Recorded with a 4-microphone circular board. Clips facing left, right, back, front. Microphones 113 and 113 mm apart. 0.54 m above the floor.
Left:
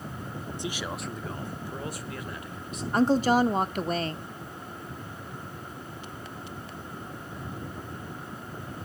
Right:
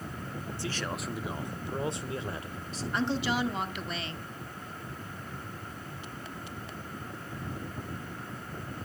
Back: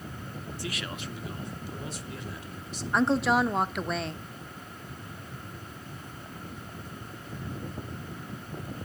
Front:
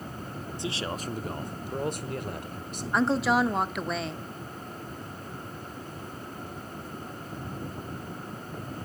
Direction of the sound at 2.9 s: 90° left.